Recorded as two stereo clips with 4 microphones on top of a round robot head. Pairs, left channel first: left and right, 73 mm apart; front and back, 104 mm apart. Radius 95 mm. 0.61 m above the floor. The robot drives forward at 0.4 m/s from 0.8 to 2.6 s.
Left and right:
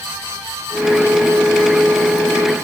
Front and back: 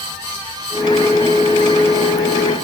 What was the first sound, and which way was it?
Only background noise.